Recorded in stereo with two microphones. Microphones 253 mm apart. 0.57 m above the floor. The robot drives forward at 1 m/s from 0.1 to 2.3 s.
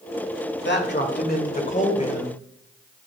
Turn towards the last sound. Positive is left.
turn(degrees=25)  # may be behind; listen again after turning